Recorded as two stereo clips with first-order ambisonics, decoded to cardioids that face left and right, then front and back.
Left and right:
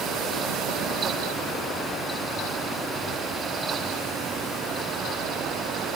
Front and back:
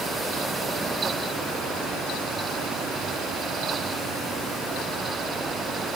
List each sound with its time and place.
Only background noise.